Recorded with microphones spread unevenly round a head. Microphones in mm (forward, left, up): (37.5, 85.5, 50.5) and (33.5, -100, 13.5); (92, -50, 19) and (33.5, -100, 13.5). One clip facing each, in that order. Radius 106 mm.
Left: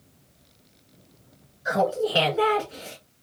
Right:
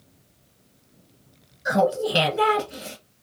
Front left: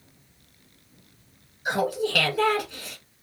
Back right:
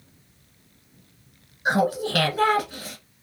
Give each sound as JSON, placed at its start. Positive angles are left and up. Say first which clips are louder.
{"t": 1.6, "sound": "laughter", "louder": "right 2 dB, back right 3 dB", "azimuth_deg": -110, "distance_m": 1.2}